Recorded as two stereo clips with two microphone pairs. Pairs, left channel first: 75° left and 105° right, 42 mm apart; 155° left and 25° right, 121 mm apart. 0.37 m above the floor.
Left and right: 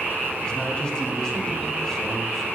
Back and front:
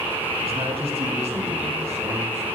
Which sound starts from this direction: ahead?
A man speaking, at 0.4 s.